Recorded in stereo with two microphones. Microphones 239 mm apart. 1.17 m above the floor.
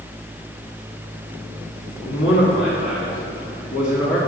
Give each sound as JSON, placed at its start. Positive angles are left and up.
{"t": 2.0, "sound": "a man speaking", "side_deg": 60, "distance_m": 3.0}